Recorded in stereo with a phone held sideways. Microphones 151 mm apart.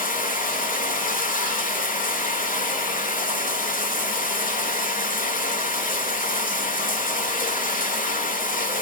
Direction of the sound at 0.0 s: 60° left (ahead or behind).